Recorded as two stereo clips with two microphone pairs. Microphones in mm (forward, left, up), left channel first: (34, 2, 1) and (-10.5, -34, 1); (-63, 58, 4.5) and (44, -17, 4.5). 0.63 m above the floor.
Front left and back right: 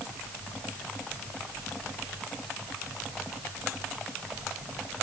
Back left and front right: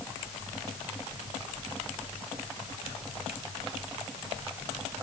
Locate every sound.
Only background noise.